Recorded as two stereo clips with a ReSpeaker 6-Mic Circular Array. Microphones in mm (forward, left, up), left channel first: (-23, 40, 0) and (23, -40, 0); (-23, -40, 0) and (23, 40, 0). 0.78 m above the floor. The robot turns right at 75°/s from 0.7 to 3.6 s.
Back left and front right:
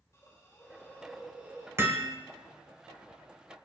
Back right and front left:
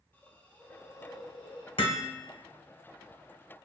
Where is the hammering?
120° right, 1.8 m; by 2.1 s 95° right, 1.8 m.